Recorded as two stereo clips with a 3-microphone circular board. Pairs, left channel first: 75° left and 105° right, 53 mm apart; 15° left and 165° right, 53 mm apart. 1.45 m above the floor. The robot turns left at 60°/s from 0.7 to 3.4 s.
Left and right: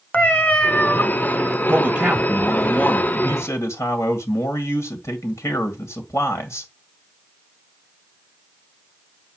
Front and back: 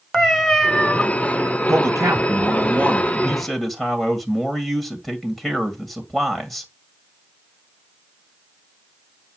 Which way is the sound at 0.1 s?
105° left.